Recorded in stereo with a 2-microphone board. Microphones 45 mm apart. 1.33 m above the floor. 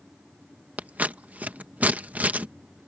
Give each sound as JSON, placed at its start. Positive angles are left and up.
{"t": 0.8, "sound": "scissors", "side_deg": -35}